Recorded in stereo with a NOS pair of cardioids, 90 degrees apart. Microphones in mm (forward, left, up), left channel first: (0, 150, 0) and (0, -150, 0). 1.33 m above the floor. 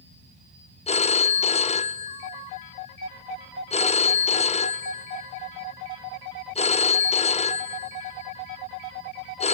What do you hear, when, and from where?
0.9 s a phone ringing: 20° left, 0.6 m